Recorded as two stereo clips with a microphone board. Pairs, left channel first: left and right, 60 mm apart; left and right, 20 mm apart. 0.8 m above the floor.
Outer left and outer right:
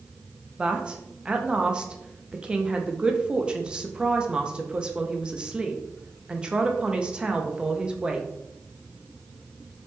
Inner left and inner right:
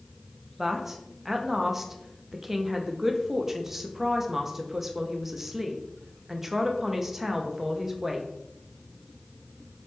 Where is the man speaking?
15° right (ahead or behind), 0.5 m.